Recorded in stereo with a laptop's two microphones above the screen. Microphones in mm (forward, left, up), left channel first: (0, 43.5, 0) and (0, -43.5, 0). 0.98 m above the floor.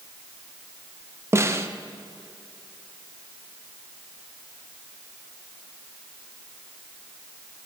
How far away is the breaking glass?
I don't hear breaking glass.